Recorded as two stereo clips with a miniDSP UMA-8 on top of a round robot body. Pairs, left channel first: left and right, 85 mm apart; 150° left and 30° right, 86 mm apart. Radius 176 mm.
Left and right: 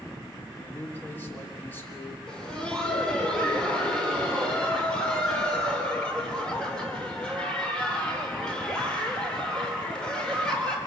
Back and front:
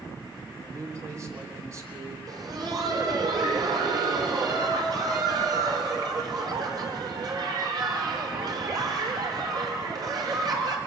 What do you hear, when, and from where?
0.6 s a man speaking: 25° left, 3.5 m
2.3 s laughter: 10° left, 4.5 m